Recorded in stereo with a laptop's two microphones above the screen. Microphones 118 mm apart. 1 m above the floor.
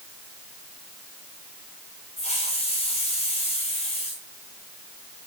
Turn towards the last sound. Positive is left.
turn(degrees=60)  # may be behind; listen again after turning